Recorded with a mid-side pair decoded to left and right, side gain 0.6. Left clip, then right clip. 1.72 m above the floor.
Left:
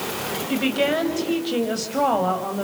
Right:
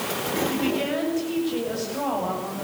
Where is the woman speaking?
40° left, 8 m.